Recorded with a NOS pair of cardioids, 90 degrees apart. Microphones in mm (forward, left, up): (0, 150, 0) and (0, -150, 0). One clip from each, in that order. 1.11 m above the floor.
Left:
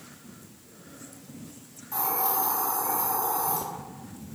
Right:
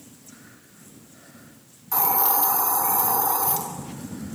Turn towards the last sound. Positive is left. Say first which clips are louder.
# right 5 dB
turn(degrees=-50)